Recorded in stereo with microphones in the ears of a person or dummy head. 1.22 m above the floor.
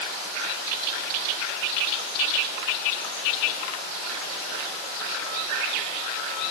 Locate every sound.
Only background noise.